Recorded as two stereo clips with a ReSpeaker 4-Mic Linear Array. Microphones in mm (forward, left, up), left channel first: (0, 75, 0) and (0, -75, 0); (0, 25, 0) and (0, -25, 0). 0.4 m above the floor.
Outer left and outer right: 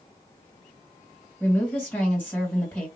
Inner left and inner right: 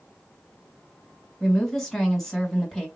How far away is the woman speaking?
About 2 m.